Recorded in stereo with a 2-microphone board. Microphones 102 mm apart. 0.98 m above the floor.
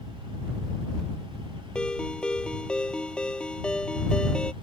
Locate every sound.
1.8 s a ringtone: 10° left (ahead or behind)